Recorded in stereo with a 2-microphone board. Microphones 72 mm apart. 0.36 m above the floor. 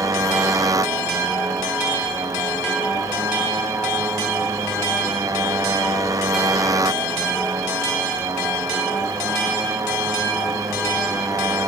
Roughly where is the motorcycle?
Right.